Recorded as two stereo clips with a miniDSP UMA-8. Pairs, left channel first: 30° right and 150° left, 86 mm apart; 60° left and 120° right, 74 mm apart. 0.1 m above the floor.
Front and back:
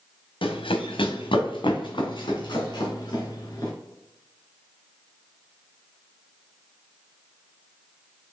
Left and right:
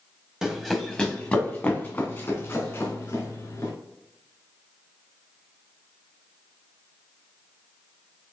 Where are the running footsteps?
35° right, 0.9 m; by 3.7 s 10° left, 2.5 m.